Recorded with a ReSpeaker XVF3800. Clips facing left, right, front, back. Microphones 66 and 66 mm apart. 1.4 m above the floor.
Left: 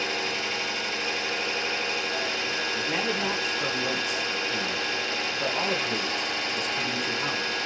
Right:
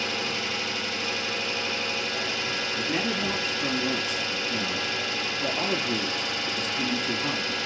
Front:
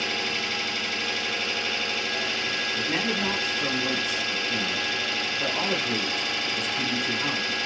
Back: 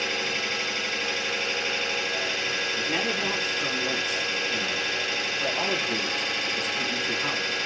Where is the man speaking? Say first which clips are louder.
Right 1 dB, front 2 dB; 75° left, 1.0 m.